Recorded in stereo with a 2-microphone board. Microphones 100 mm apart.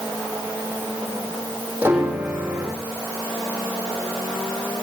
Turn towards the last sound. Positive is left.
turn(degrees=-20)  # may be behind; listen again after turning